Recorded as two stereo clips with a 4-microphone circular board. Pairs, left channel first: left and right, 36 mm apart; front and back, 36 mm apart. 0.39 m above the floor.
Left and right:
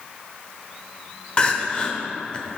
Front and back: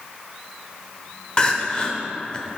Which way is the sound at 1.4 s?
50° left.